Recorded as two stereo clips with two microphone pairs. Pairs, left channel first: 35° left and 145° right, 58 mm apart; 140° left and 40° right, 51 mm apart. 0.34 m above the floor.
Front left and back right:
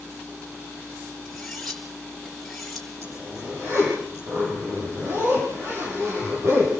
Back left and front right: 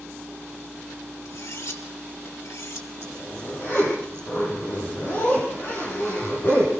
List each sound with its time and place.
1.2 s cutlery clinking: 120° left, 4 m
3.0 s a zipper: 175° left, 9.5 m